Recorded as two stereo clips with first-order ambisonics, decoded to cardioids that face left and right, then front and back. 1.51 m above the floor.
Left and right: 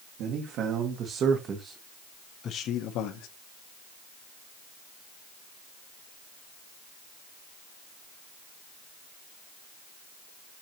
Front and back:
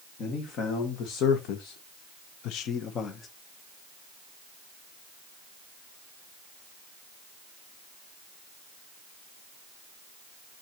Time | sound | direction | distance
0.2 | a man speaking | 50° right | 2.0 m